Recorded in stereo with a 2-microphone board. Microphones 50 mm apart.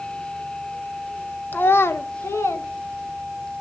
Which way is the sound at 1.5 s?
40° left (ahead or behind).